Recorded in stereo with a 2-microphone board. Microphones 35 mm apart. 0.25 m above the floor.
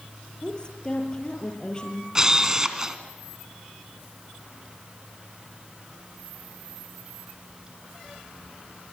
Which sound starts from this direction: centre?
A camera shutter, at 2.1 s.